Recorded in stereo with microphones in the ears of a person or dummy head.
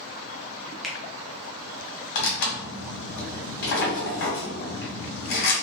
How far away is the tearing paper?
About 1.8 m.